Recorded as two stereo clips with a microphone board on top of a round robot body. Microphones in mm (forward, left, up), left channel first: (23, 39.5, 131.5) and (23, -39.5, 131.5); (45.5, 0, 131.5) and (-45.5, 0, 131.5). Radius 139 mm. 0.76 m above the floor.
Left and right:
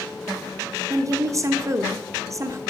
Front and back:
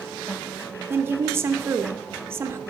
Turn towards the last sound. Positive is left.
turn(degrees=-125)